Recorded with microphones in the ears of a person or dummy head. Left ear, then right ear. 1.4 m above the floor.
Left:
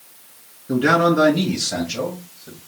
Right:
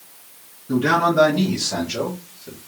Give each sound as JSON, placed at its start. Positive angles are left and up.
{"t": 0.7, "sound": "a man speaking", "side_deg": 15, "distance_m": 1.9}